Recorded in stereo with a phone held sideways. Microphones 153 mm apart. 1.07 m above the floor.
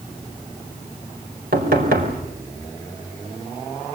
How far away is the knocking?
About 4.5 m.